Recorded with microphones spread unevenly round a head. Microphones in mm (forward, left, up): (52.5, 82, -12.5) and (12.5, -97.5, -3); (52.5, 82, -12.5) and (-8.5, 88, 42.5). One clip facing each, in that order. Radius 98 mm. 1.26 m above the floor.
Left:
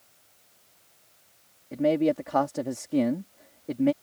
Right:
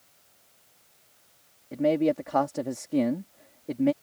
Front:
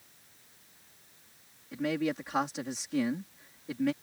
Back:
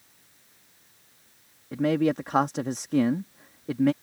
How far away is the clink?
I don't hear a clink.